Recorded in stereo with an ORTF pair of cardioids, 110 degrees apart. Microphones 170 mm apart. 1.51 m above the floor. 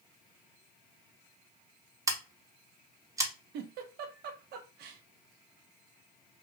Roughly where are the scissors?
Ahead.